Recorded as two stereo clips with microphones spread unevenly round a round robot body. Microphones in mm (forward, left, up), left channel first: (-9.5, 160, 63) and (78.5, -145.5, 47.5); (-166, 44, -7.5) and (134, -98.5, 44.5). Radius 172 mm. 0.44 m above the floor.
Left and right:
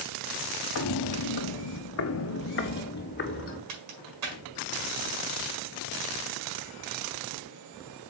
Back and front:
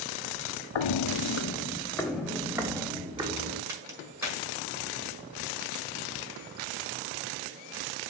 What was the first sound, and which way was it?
Footsteps, 145° left.